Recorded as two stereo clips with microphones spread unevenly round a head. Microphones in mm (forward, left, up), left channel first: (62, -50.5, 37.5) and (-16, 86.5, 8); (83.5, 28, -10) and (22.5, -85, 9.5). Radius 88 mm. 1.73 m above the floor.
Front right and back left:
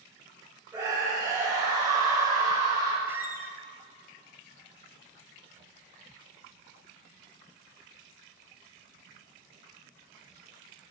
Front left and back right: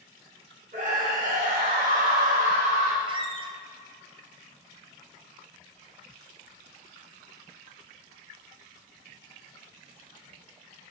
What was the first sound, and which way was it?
A scream, 165° right.